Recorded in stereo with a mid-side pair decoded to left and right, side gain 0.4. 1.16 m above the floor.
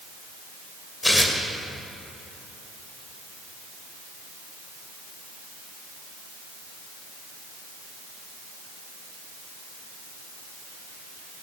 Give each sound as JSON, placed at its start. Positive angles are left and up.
{"t": 1.0, "sound": "tearing paper", "azimuth_deg": 15, "distance_m": 2.5}